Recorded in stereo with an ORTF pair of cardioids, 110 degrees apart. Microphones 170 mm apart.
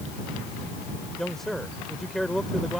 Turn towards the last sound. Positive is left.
turn(degrees=0)